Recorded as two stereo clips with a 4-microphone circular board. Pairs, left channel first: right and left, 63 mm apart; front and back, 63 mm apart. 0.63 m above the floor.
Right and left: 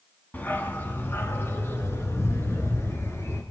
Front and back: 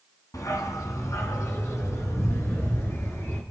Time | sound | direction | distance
0.3 | a dog barking | 30° right | 2.5 m